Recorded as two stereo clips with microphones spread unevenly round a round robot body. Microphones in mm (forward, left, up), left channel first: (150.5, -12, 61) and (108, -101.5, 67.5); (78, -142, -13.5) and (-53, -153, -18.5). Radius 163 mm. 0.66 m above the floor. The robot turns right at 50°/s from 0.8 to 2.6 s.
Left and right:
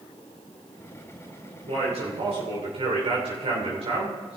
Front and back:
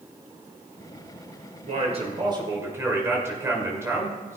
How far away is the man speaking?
About 2.5 m.